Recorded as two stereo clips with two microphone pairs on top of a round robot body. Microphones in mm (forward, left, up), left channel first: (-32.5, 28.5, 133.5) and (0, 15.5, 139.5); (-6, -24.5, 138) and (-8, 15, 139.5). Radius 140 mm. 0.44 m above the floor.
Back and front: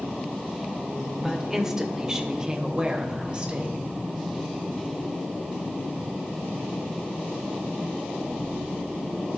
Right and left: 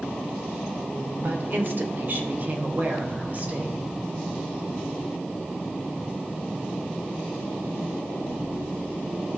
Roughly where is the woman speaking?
Ahead left.